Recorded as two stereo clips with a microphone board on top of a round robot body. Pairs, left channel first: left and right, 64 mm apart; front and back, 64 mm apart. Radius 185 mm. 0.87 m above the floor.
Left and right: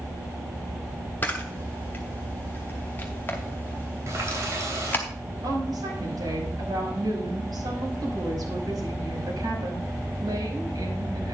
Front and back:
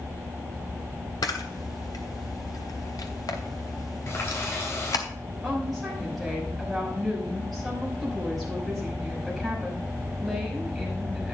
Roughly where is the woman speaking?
Right.